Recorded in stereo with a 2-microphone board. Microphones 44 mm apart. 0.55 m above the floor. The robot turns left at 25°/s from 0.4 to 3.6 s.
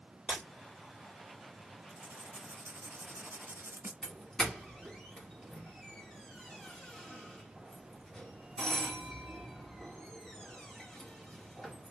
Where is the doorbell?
10° left (ahead or behind), 1.5 m.